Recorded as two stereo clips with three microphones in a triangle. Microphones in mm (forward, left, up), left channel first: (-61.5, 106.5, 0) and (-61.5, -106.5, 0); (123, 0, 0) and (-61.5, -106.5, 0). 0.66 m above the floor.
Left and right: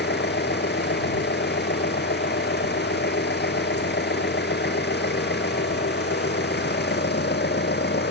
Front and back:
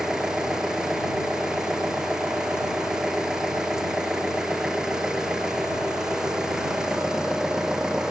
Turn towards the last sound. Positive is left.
turn(degrees=125)